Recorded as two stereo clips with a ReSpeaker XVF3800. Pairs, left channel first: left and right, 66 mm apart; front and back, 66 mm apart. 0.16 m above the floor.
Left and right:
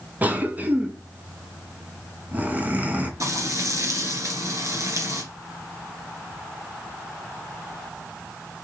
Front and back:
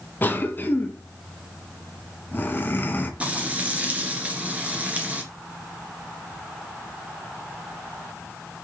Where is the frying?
115° right, 2 m.